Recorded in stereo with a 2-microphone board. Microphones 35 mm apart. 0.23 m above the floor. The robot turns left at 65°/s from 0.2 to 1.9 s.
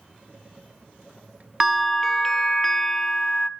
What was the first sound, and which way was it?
A bell, 10° right (ahead or behind).